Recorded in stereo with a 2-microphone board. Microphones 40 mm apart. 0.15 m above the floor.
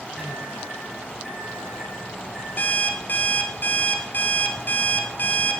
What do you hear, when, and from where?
0.2 s a microwave: 5° right (ahead or behind), 4 m
2.6 s an alarm clock: 45° left (ahead or behind), 1.1 m